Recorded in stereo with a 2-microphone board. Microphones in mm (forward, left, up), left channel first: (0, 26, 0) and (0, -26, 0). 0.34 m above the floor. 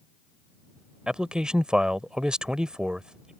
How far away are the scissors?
No scissors in this recording.